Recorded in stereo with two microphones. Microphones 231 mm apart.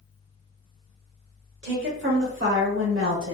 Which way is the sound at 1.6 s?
50° right (ahead or behind).